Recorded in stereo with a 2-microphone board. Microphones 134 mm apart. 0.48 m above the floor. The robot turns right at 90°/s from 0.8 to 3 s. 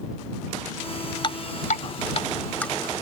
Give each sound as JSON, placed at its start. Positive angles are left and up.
{"t": 1.2, "sound": "dripping", "side_deg": 40}